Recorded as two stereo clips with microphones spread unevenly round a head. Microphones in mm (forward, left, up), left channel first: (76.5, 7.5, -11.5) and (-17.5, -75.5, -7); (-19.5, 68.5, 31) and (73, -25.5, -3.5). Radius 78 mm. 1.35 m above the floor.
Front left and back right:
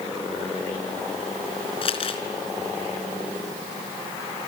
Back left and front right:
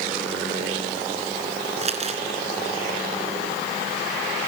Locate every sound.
1.8 s crumpling: straight ahead, 3 m